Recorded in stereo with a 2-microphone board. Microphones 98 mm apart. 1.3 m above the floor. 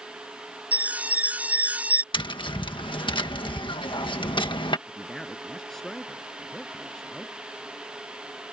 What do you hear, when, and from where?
0.7 s an alarm: 15° right (ahead or behind)
2.1 s tapping: 55° left (ahead or behind)
4.9 s a man speaking: 5° left (ahead or behind)